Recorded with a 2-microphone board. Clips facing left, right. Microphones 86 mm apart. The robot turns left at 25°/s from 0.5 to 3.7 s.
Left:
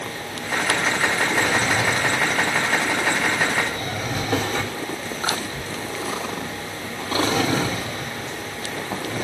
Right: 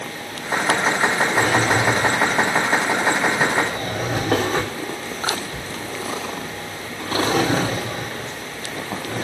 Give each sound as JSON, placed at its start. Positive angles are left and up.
{"t": 1.4, "sound": "a drawer", "side_deg": -60, "distance_m": 3.5}